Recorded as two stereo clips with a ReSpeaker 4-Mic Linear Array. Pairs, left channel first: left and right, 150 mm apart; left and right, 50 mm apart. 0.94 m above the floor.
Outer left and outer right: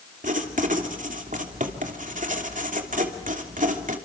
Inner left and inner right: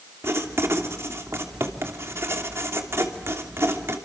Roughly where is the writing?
Right.